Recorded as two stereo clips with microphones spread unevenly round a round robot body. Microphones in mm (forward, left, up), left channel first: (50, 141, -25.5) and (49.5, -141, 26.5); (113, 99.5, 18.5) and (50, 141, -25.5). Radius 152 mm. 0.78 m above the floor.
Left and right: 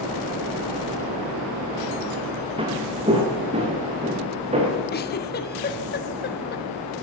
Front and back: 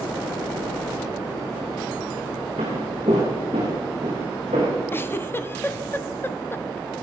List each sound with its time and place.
2.6 s footsteps: 160° right, 2 m
4.9 s a giggle: 45° left, 1.2 m